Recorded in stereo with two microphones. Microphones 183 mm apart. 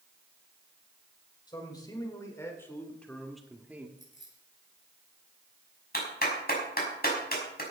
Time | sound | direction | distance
1.5 | a man speaking | 25° left (ahead or behind) | 4 m
4.0 | keys jangling | 85° left | 7 m
5.9 | a clap | 55° left (ahead or behind) | 5.5 m